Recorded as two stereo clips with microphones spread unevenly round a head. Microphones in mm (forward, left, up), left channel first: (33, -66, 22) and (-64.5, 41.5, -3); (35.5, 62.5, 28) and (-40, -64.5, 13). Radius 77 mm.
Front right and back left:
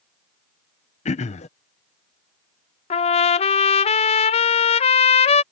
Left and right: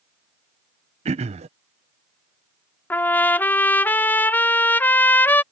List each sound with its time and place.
1.1 s throat clearing: 90° right
2.9 s a trumpet: 20° right